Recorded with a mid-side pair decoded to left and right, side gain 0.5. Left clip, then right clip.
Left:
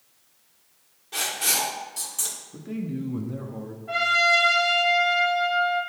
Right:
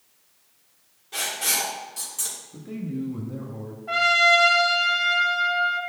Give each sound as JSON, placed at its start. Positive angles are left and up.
{"t": 1.1, "sound": "writing", "azimuth_deg": 10, "distance_m": 4.0}
{"t": 2.5, "sound": "a man speaking", "azimuth_deg": 10, "distance_m": 1.9}
{"t": 3.9, "sound": "a trumpet", "azimuth_deg": -35, "distance_m": 3.0}